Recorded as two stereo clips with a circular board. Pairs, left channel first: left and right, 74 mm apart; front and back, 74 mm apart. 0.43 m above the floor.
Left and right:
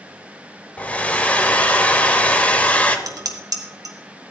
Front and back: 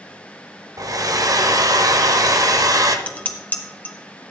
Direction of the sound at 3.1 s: 65° right.